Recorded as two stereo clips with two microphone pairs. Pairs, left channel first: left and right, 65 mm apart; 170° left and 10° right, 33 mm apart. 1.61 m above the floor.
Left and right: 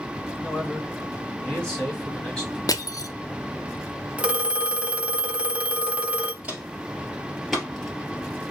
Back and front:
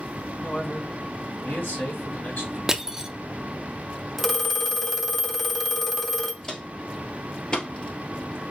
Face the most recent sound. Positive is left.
turn(degrees=145)